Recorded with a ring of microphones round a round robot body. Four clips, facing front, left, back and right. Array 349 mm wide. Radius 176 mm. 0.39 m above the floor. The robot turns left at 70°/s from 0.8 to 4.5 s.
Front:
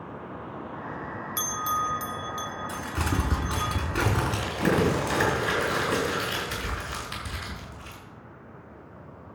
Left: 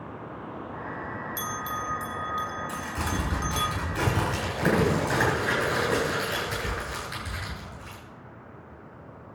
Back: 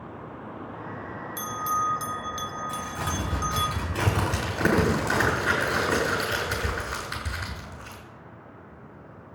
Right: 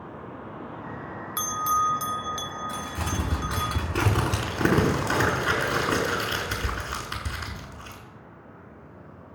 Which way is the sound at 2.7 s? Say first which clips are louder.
Even, front 1 dB; 25° left.